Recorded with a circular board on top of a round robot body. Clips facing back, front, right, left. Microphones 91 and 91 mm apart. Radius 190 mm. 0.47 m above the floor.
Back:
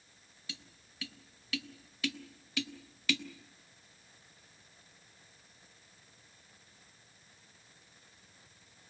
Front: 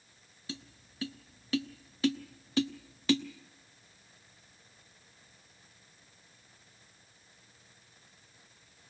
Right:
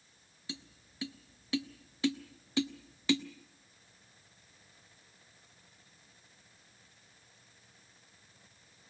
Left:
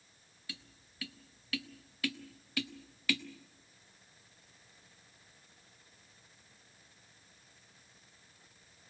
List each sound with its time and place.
0.5 s tapping: 35° right, 1.2 m